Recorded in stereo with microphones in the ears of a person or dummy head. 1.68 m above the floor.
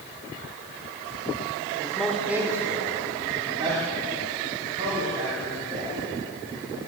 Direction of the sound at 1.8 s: 10° left (ahead or behind).